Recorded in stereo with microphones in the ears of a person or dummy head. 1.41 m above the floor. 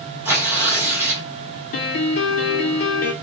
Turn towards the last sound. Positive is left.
turn(degrees=45)  # may be behind; listen again after turning